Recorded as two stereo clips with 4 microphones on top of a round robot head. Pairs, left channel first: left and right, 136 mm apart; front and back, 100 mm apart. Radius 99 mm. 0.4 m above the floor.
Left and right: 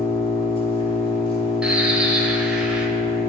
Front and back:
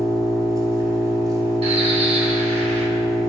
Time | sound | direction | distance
0.0 | an engine running | 135° left | 1.9 m
1.6 | a bird | 175° right | 1.0 m